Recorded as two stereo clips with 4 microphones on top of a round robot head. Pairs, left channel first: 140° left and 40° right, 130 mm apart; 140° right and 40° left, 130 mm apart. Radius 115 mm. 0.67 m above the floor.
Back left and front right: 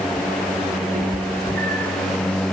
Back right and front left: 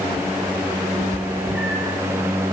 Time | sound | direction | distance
0.9 | a cat meowing | 35° right | 5 m